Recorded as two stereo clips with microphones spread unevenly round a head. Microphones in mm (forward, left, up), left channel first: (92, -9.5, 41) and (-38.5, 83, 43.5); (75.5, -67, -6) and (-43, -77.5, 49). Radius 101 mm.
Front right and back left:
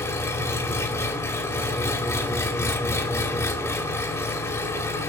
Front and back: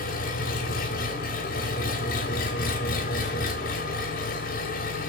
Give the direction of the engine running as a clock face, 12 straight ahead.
11 o'clock.